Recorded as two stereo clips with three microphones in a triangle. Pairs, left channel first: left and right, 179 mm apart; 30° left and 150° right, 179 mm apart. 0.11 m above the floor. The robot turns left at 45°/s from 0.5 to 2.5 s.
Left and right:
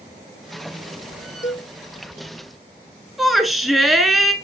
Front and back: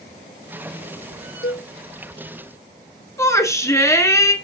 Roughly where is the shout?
Ahead.